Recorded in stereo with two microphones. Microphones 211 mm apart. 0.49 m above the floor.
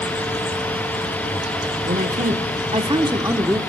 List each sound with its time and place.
1.9 s a man speaking: 45° right (ahead or behind), 1.5 m; by 3.6 s 5° right (ahead or behind), 1.2 m